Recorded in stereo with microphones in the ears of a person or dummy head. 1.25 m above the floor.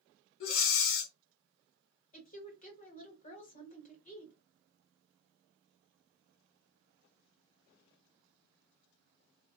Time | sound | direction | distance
0.4 | breathing | 60° left (ahead or behind) | 0.6 m
2.1 | a woman speaking | 35° left (ahead or behind) | 1.1 m